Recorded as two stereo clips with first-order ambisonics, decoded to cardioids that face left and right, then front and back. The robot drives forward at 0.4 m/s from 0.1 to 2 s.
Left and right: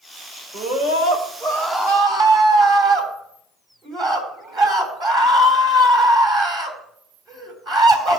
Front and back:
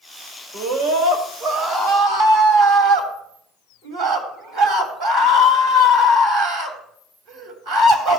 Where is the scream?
150° right, 2.5 m; by 8.2 s 155° right, 3 m.